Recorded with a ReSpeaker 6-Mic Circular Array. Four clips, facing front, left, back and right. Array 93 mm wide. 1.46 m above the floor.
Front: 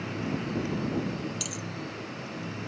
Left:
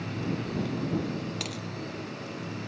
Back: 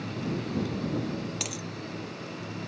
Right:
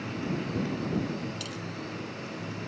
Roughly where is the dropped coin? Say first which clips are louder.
Left 1 dB, back 1 dB; behind left.